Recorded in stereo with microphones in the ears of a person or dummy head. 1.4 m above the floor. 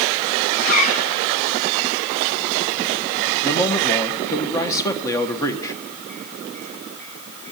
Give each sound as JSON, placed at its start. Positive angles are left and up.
{"t": 0.5, "sound": "a zipper", "side_deg": 45, "distance_m": 1.5}
{"t": 3.4, "sound": "a man speaking", "side_deg": 15, "distance_m": 1.2}